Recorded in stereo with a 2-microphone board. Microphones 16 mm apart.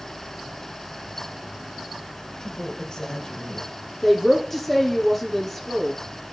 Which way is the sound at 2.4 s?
50° left (ahead or behind).